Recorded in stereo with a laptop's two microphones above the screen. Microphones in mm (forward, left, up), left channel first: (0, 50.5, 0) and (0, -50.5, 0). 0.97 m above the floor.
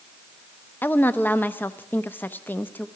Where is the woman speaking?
20° left (ahead or behind), 0.8 m.